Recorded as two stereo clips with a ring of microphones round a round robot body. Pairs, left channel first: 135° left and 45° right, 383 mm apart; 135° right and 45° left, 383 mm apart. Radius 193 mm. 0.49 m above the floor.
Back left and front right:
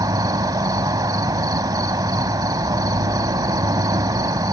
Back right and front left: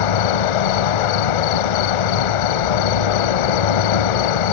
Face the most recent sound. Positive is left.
turn(degrees=-125)